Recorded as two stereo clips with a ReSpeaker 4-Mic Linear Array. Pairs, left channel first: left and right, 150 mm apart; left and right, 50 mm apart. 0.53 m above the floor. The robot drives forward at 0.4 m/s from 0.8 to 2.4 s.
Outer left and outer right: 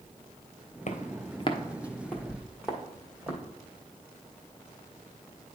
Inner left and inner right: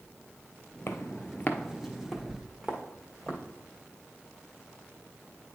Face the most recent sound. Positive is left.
turn(degrees=-10)  # may be behind; listen again after turning